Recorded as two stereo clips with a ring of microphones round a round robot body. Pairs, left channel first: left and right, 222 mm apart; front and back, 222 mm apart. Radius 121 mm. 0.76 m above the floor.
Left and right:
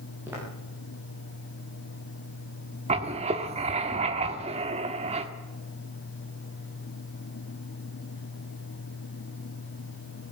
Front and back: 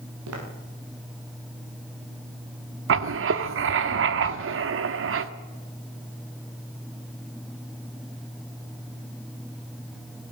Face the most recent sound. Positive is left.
turn(degrees=-155)